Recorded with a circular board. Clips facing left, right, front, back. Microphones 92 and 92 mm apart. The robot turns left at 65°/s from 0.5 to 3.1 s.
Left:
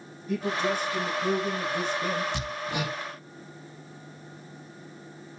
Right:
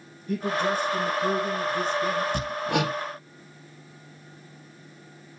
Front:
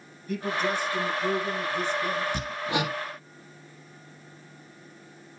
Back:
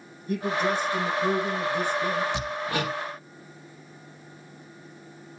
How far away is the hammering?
About 1.3 m.